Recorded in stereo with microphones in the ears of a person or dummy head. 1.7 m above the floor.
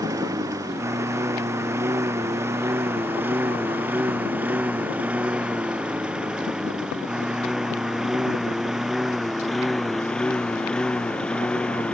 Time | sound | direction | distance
0.0 | a lawn mower | 10° right (ahead or behind) | ?